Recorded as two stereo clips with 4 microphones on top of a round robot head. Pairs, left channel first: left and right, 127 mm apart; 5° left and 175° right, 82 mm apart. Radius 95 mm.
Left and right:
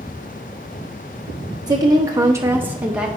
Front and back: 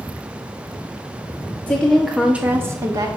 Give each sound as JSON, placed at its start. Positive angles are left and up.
{"t": 1.7, "sound": "a woman speaking", "azimuth_deg": -55, "distance_m": 0.8}